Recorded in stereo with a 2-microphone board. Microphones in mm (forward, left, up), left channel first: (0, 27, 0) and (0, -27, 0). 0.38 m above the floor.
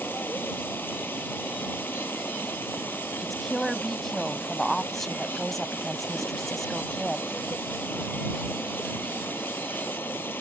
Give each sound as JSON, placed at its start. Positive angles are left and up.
{"t": 0.0, "sound": "running water", "side_deg": 40}
{"t": 3.2, "sound": "a woman speaking", "side_deg": 5}